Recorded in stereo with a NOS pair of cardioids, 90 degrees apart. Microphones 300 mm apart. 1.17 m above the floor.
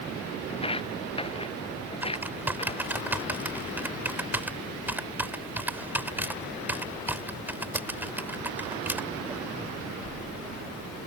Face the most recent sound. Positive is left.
turn(degrees=-5)